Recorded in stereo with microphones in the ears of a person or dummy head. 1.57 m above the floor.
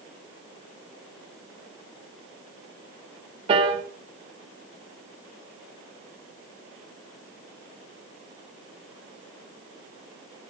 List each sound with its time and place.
3.5 s a piano: 35° right (ahead or behind), 0.9 m